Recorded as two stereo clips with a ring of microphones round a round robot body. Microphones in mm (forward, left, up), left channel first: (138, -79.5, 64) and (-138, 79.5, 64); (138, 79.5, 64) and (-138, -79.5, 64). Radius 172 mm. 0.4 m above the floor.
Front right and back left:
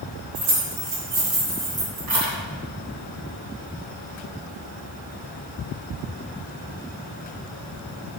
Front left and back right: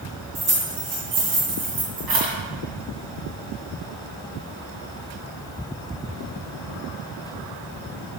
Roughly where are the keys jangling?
Behind left.